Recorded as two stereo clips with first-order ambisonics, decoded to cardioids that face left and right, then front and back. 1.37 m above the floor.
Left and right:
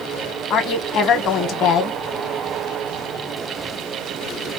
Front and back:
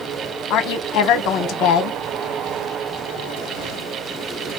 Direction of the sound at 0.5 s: 40° left.